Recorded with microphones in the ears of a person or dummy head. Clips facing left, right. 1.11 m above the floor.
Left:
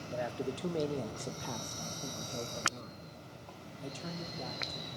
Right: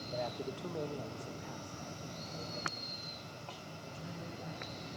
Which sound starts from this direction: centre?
A man speaking, at 0.1 s.